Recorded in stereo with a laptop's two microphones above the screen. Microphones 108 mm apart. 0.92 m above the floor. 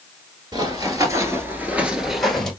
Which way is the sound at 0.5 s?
35° right (ahead or behind).